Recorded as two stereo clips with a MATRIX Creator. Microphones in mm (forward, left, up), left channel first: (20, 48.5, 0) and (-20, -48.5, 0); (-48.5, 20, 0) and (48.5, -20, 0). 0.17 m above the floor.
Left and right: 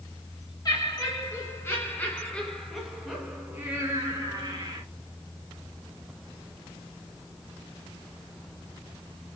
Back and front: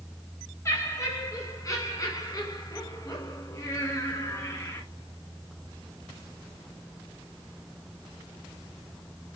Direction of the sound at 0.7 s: 105° left.